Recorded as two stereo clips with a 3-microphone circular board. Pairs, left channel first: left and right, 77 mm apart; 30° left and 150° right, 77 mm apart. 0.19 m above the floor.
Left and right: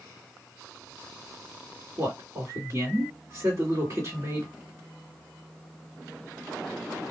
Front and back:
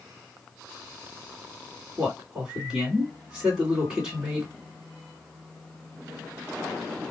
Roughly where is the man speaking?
Right.